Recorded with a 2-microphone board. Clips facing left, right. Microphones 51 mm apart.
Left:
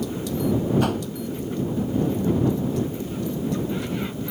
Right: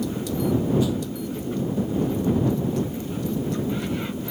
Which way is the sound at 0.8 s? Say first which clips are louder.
Left 1 dB; 55° left (ahead or behind).